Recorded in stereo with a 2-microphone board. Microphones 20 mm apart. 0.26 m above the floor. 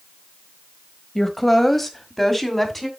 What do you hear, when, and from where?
1.1 s a woman speaking: 5° left (ahead or behind), 1.2 m